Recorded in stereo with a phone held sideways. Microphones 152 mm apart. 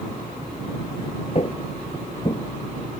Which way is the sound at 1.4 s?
45° left (ahead or behind).